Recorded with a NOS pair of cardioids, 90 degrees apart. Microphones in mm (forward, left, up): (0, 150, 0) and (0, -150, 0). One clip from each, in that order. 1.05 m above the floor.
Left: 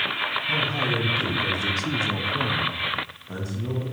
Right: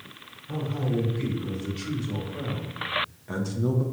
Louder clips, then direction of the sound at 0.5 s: Left 4 dB; 65° left.